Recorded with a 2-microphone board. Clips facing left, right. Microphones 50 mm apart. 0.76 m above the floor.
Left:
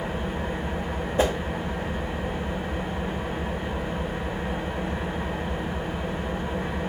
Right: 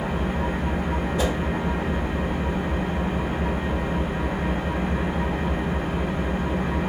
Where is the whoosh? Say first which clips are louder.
Left 4 dB; 30° left (ahead or behind), 0.5 m.